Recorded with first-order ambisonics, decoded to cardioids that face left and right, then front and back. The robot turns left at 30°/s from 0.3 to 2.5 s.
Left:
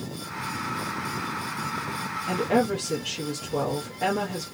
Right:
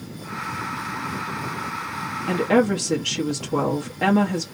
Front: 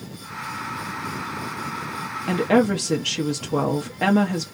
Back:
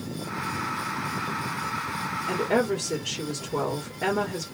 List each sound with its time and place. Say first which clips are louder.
2.3 s a woman speaking: right 4 dB, front 5 dB; 15° right, 0.7 m; by 4.5 s 25° right, 0.7 m